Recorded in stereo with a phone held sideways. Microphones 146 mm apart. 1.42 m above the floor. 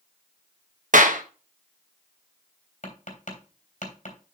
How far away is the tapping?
About 3 m.